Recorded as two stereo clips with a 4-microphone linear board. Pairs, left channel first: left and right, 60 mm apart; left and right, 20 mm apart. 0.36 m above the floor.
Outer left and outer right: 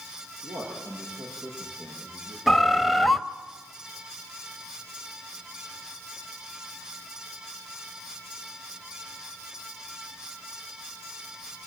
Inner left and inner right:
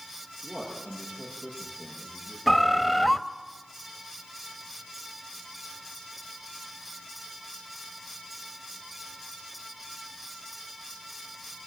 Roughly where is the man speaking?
Right.